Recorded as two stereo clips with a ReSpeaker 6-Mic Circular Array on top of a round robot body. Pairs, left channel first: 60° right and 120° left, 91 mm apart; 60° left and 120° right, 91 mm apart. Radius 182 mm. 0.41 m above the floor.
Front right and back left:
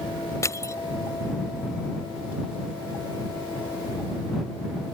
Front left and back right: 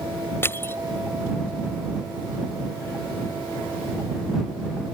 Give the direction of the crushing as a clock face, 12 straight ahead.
12 o'clock.